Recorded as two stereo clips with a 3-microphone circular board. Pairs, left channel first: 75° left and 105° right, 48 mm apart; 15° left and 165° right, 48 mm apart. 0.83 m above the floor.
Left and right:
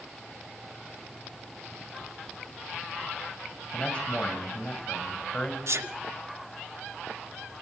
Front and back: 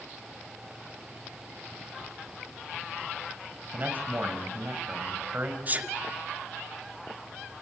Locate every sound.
3.7 s a man speaking: 140° left, 4 m
5.7 s a sneeze: 115° right, 2.5 m